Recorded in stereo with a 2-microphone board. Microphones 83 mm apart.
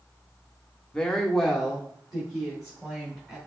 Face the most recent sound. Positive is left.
turn(degrees=-10)  # may be behind; listen again after turning